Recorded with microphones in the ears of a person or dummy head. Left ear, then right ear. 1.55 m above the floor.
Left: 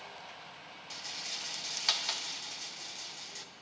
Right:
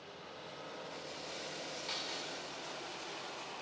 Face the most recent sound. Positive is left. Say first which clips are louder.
# left 11 dB
turn(degrees=55)  # may be behind; listen again after turning